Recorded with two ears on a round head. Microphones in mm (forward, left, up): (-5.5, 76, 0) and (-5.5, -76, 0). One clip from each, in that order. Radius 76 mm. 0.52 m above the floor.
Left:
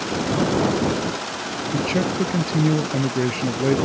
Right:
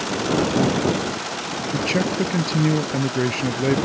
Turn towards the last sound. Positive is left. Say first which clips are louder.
# right 1 dB
turn(degrees=-20)  # may be behind; listen again after turning